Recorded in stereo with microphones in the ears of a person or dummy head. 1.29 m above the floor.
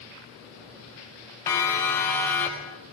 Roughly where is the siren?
Centre.